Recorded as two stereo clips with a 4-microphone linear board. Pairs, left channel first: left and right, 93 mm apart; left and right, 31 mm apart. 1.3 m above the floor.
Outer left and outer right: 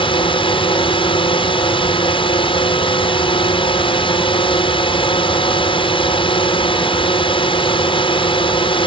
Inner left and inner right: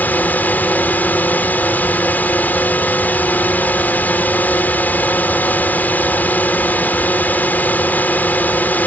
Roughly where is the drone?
Left.